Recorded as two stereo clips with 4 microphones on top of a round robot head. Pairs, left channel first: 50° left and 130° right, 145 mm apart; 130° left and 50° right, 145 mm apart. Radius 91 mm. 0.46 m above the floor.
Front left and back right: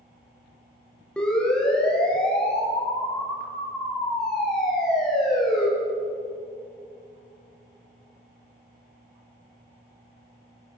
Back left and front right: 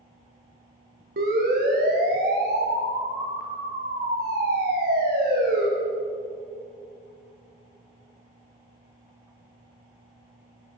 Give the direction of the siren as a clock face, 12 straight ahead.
1 o'clock.